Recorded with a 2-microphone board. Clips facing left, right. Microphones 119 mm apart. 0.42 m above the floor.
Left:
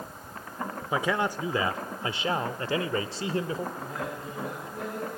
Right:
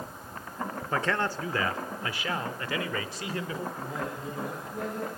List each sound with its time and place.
0.9 s a man speaking: 10° left (ahead or behind), 1.0 m; by 3.7 s 30° left (ahead or behind), 1.5 m
3.8 s a man speaking: centre (ahead or behind), 9.5 m